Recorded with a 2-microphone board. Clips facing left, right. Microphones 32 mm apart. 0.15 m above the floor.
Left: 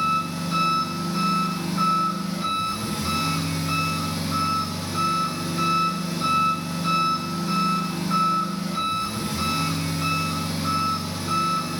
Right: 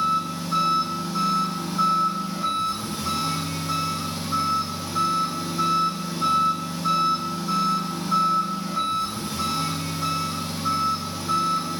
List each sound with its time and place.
0.0 s an engine running: 65° left (ahead or behind), 1.2 m